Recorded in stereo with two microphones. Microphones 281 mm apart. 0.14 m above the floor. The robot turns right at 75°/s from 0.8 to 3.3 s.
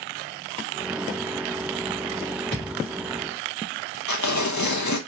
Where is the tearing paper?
80° left, 0.7 m.